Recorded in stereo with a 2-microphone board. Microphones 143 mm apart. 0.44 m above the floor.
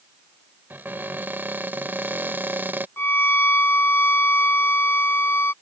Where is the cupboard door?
15° right (ahead or behind).